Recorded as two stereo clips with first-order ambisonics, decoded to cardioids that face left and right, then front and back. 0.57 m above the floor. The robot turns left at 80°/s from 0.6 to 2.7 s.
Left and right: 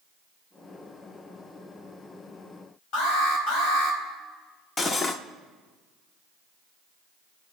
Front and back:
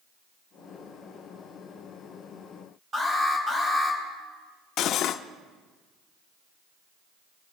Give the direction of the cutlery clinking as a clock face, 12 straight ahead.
11 o'clock.